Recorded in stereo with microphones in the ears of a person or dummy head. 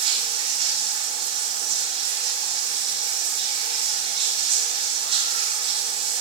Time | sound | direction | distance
0.0 | running water | 35° right (ahead or behind) | 6.5 m